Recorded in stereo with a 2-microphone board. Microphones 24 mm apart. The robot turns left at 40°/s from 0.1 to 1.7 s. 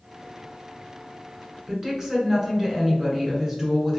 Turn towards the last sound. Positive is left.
turn(degrees=-20)  # may be behind; listen again after turning